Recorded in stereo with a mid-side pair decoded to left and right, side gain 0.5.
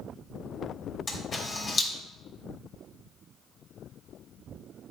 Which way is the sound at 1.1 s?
40° left.